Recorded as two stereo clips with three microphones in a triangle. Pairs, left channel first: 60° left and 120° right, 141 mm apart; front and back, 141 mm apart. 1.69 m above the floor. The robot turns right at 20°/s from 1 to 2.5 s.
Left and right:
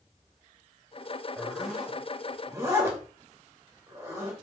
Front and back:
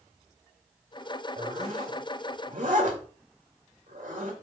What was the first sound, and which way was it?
A zipper, 150° left.